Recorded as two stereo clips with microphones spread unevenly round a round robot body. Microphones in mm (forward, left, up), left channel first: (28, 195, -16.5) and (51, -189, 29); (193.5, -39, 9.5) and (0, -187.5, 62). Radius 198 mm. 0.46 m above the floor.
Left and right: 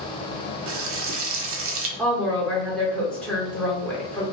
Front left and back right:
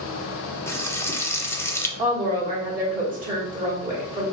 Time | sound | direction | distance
0.7 | frying | 30° right | 0.6 m
2.0 | a woman speaking | 170° left | 1.1 m